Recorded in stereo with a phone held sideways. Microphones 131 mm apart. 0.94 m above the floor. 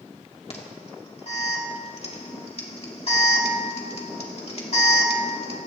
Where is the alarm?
50° left (ahead or behind), 2.5 m.